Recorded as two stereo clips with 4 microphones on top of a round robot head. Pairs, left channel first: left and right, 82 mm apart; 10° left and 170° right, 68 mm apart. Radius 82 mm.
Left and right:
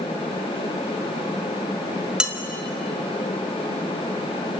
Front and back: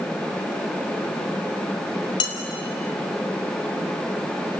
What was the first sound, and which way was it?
Dishes clattering, 10° right.